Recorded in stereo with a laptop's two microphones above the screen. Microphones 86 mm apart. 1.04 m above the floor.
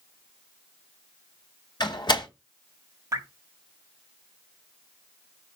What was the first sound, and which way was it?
A door slam, 60° left (ahead or behind).